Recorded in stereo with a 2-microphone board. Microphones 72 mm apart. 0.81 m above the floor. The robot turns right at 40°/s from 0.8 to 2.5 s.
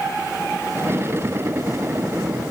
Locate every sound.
Only background noise.